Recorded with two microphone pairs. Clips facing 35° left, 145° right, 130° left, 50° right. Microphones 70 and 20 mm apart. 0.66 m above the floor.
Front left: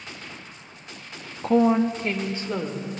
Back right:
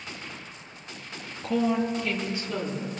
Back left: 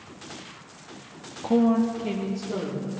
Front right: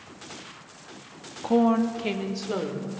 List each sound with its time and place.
1.4 s a woman speaking: 35° left, 0.6 m; by 2.9 s 25° right, 1.9 m